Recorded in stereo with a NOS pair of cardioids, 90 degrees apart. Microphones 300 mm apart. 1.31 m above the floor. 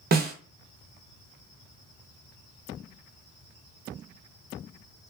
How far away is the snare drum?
About 0.9 m.